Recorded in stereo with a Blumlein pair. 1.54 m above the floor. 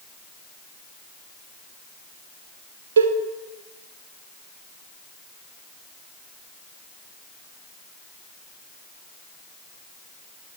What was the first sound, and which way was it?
A cowbell, 65° right.